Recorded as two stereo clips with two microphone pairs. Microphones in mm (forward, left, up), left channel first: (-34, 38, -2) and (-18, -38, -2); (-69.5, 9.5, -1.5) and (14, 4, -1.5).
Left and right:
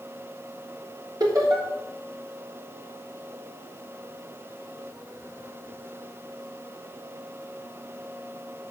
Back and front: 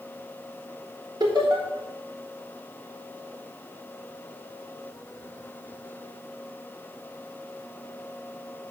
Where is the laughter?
40° right, 3 m.